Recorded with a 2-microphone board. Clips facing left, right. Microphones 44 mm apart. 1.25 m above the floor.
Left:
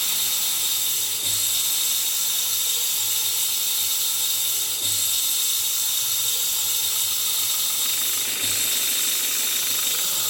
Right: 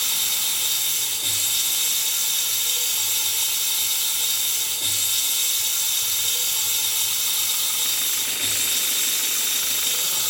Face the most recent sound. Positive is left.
turn(degrees=-50)  # may be behind; listen again after turning